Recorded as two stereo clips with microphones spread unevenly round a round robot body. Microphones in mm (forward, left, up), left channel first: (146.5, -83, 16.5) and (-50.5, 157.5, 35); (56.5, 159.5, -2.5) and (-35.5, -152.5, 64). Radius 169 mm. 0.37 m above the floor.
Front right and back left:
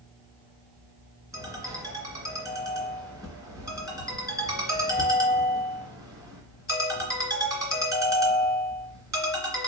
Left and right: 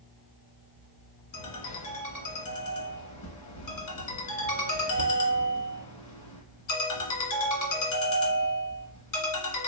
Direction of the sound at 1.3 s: 50° left.